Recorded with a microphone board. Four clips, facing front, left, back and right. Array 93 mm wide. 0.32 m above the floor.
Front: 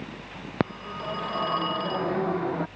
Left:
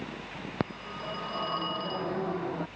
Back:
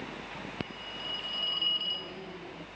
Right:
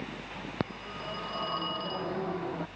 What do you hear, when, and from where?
0.6 s a phone ringing: 5° left